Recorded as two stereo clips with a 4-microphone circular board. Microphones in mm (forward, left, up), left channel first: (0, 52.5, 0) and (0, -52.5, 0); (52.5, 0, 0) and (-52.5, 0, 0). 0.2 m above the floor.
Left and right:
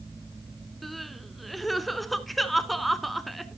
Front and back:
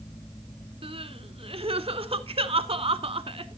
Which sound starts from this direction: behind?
Crying, at 0.8 s.